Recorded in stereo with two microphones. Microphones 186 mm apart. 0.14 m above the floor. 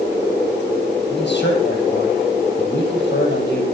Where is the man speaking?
65° left (ahead or behind), 4.5 m.